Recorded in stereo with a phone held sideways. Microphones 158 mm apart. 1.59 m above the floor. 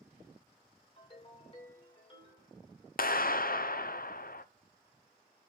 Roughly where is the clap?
Left.